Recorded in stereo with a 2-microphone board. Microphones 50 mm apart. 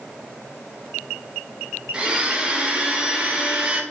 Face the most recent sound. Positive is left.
turn(degrees=-20)  # may be behind; listen again after turning